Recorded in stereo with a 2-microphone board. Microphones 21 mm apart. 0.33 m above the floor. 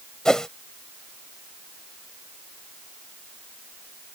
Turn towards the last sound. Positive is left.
turn(degrees=25)  # may be behind; listen again after turning